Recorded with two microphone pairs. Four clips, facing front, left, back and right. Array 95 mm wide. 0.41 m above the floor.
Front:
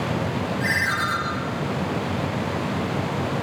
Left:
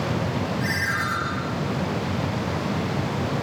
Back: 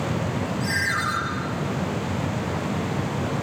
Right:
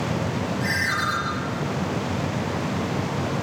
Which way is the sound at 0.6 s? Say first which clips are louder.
Right 1 dB, front 1 dB; 5° left.